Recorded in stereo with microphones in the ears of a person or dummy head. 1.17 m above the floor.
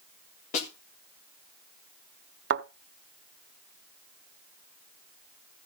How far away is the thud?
About 0.8 m.